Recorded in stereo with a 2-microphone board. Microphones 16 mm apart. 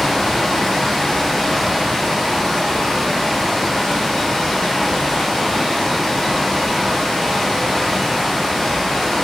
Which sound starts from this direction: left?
Running water, at 0.0 s.